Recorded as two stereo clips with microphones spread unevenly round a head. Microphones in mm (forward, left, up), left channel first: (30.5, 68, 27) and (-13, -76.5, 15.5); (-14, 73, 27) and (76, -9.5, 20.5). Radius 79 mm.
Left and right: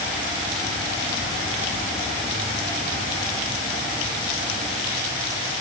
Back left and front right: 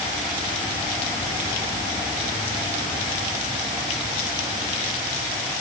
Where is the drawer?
I don't hear a drawer.